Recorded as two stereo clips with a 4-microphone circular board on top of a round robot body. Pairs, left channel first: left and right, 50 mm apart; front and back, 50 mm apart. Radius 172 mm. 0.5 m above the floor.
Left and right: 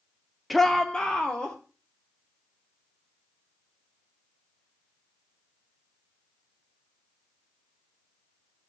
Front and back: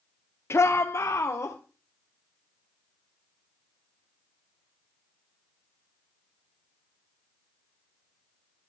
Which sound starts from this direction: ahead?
A shout, at 0.5 s.